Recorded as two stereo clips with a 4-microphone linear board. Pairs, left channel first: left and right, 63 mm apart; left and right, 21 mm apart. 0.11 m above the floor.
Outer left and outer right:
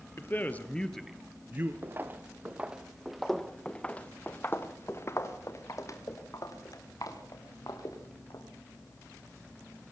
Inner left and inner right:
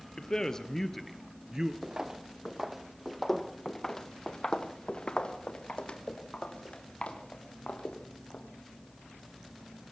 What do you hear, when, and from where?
0.2 s a man speaking: 35° left (ahead or behind), 1.9 m; by 1.7 s 35° right (ahead or behind), 1.6 m
1.8 s footsteps: 35° right (ahead or behind), 1.7 m; by 8.4 s 70° left (ahead or behind), 4 m